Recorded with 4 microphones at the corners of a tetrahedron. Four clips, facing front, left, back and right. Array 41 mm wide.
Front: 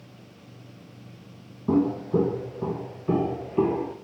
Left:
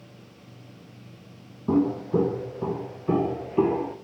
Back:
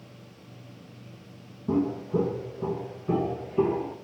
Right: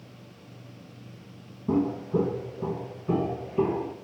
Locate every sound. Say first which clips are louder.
1.7 s footsteps: left 3 dB, front 4 dB; 45° left, 2.5 m; by 3.9 s 65° left, 5 m